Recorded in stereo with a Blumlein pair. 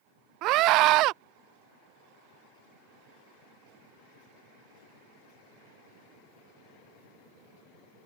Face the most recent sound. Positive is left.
turn(degrees=-40)